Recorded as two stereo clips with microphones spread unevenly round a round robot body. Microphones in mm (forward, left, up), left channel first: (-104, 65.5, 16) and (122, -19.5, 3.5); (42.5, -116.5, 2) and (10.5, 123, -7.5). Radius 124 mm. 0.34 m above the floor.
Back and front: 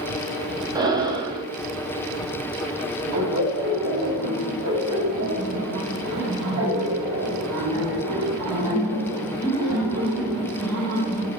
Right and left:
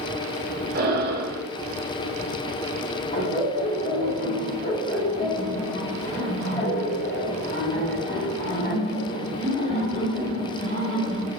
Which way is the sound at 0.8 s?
50° left.